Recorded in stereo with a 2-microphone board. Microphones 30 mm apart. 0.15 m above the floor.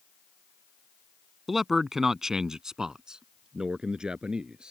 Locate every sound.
1.5 s a man speaking: 5° right (ahead or behind); by 4.7 s 30° right (ahead or behind)